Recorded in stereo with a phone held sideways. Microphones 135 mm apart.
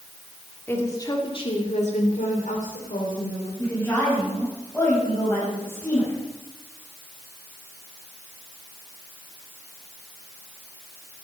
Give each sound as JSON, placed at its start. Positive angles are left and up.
{"t": 0.7, "sound": "a woman speaking", "side_deg": 15, "distance_m": 2.5}
{"t": 3.6, "sound": "a woman speaking", "side_deg": 15, "distance_m": 6.5}